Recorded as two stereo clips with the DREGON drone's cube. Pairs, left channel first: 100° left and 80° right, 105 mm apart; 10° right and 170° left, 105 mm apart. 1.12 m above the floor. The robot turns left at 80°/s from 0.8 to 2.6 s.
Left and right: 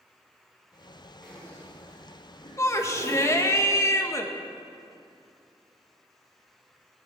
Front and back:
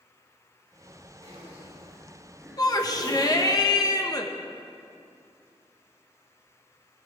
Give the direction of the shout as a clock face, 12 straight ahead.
11 o'clock.